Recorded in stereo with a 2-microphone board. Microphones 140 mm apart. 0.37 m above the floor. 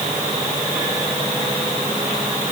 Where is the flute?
No flute in this recording.